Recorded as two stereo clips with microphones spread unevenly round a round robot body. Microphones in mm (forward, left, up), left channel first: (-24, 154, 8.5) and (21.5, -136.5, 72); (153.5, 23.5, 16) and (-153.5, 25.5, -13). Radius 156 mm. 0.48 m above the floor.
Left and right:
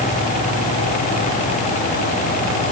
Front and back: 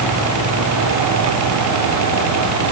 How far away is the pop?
I don't hear a pop.